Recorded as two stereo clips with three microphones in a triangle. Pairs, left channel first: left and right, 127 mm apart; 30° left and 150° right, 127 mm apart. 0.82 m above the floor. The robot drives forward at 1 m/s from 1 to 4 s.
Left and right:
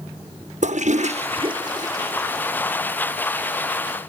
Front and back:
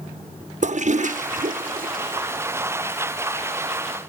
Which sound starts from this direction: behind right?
A toilet flushing, at 0.6 s.